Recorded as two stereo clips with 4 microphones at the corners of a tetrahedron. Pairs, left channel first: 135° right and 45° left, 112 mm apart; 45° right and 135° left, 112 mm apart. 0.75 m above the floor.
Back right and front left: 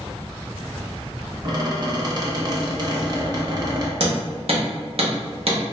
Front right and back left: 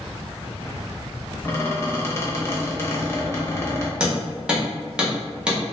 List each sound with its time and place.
1.4 s a squeak: 15° left, 0.6 m
4.0 s hammering: 55° left, 0.8 m